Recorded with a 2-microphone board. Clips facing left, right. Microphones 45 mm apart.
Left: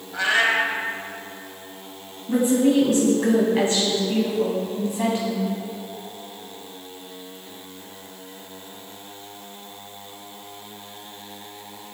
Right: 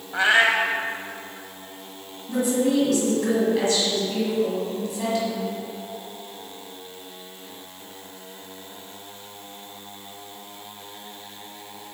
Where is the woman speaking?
25° left (ahead or behind), 1.9 m.